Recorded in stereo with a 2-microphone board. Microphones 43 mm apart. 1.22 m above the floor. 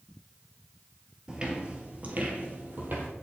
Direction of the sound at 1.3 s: 20° right (ahead or behind).